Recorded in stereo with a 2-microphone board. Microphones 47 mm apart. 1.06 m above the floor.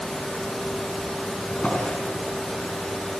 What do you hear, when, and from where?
1.5 s a drawer: 25° left (ahead or behind), 4.5 m